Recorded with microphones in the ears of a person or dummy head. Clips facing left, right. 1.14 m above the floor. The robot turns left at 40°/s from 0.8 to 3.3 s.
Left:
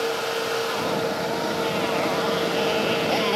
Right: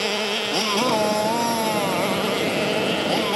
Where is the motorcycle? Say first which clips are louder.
Even; 85° right; by 3.4 s 175° left.